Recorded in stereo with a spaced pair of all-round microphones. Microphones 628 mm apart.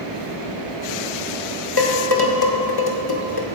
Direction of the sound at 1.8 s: 35° left (ahead or behind).